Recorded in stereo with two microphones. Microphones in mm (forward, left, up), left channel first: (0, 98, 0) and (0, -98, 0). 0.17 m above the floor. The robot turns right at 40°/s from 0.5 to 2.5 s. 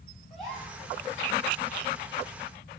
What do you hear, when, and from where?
0.3 s a gasp: centre (ahead or behind), 2.5 m; by 0.8 s 10° right (ahead or behind), 2.5 m